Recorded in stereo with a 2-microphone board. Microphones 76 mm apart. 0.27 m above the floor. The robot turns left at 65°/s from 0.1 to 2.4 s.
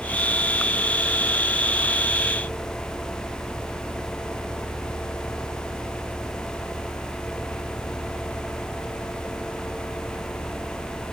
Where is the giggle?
No giggle in this recording.